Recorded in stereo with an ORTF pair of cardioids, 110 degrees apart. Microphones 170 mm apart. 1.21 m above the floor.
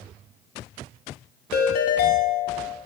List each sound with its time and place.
1.5 s a ringtone: 65° left, 0.6 m